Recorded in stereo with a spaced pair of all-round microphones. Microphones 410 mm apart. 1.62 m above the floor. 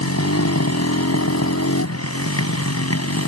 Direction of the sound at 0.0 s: 35° left (ahead or behind).